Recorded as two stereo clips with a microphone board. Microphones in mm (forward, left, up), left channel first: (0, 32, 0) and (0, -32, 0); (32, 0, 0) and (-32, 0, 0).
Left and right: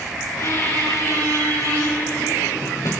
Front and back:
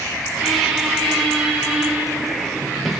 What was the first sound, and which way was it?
A squeak, 90° left.